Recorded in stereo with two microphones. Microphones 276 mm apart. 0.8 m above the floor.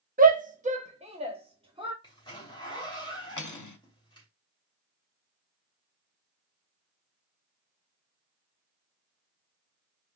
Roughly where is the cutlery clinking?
Left.